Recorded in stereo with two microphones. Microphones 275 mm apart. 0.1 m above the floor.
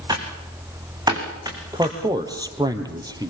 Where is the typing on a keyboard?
15° right (ahead or behind), 6 m.